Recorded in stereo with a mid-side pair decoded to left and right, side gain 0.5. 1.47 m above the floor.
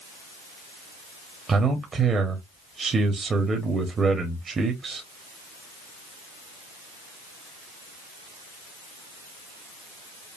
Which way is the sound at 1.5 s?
35° right.